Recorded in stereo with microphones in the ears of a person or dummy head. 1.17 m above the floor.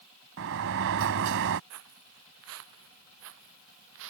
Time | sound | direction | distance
0.4 | a sliding door | 60° right (ahead or behind) | ?
1.7 | footsteps | 75° right (ahead or behind) | ?